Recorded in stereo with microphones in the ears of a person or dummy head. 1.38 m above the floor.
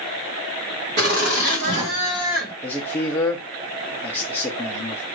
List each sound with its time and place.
1.0 s laughter: 55° right (ahead or behind), 1.3 m; by 2.5 s centre (ahead or behind), 1.1 m
2.6 s a man speaking: 10° left (ahead or behind), 0.6 m